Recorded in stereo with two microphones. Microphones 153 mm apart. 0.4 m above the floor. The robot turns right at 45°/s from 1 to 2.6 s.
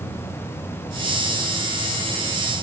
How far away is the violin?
I don't hear a violin.